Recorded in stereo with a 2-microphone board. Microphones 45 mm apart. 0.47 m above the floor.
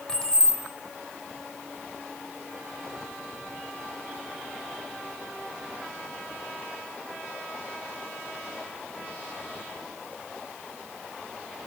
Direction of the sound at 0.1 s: 20° left (ahead or behind).